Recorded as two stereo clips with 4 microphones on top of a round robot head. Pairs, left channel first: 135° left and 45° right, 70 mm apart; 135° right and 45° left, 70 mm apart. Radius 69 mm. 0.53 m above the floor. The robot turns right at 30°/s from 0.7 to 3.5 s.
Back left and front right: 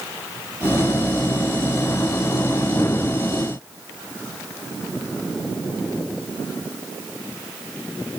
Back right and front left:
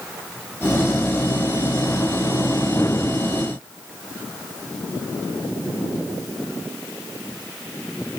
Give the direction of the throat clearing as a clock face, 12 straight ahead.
I don't hear throat clearing.